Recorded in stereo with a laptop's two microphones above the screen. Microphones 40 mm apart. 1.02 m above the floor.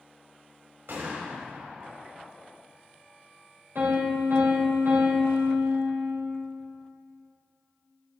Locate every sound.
0.9 s a gunshot: 70° right (ahead or behind), 1.4 m
3.8 s a piano: 85° right, 2.5 m